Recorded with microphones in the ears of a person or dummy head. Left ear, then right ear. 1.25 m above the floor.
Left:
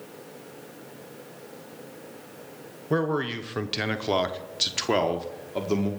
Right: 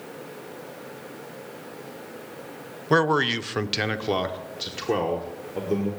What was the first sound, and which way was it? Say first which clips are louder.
A man speaking: right 6 dB; 45° right (ahead or behind).